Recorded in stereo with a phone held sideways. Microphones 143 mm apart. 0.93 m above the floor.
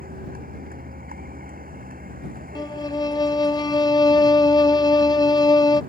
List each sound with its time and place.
0.0 s a vehicle: 80° right; by 5.9 s 75° right (ahead or behind)
2.5 s a violin: 30° left (ahead or behind)